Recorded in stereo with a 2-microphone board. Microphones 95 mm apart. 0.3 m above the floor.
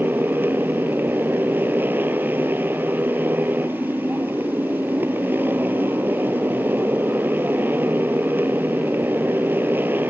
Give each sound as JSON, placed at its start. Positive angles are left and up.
{"t": 0.0, "sound": "a motorcycle", "side_deg": -20}